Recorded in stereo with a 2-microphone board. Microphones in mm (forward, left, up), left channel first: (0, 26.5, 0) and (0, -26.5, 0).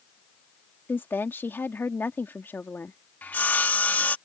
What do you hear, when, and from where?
0.9 s a woman speaking: 45° left (ahead or behind)
3.2 s sawing: 35° left (ahead or behind)